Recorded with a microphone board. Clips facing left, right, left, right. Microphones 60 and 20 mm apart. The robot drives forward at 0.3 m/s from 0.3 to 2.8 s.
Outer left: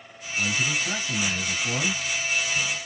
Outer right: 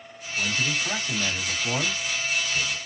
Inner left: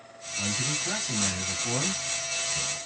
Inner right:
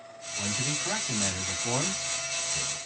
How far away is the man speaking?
About 2 m.